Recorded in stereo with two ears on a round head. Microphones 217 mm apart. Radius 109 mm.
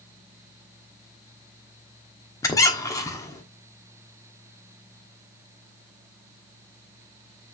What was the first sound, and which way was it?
A squeak, 15° left (ahead or behind).